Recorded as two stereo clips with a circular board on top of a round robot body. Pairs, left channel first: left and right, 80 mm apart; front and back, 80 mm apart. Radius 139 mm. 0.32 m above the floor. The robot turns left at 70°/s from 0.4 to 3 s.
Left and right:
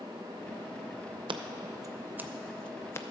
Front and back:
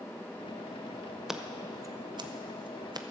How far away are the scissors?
About 0.6 m.